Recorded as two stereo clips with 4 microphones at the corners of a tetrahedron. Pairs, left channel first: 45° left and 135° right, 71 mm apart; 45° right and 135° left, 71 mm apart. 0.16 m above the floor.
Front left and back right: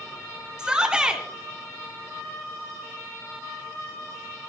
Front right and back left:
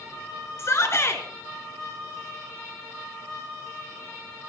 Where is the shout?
60° right, 2 m.